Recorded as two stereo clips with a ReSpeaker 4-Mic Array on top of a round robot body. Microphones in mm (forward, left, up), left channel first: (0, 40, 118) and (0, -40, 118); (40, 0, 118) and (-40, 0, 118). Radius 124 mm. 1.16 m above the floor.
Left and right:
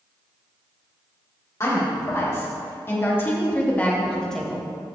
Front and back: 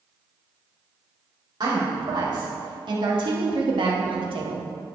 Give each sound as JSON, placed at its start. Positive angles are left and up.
{"t": 1.6, "sound": "a woman speaking", "azimuth_deg": 145, "distance_m": 3.0}